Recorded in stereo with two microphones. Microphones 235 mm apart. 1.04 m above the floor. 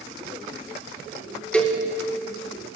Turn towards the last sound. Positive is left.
turn(degrees=5)  # may be behind; listen again after turning